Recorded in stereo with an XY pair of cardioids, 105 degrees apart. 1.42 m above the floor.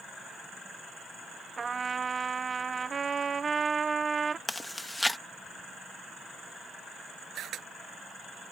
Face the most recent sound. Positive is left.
turn(degrees=-70)